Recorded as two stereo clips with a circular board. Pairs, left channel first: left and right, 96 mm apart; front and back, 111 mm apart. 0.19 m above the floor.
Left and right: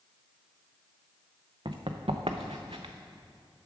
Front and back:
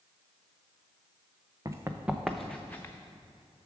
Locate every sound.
1.6 s running footsteps: 120° right, 0.8 m; by 2.9 s 65° right, 0.9 m